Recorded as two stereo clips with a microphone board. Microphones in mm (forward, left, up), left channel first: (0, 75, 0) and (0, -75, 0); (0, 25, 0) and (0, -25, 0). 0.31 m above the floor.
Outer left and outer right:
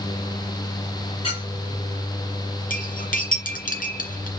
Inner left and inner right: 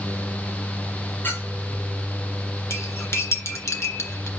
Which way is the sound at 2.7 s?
60° left (ahead or behind).